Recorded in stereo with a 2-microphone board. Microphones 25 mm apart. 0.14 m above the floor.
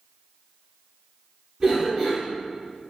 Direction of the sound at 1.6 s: 10° right (ahead or behind).